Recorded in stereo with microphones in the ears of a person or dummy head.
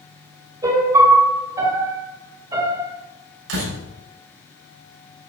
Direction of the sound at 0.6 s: 20° right (ahead or behind).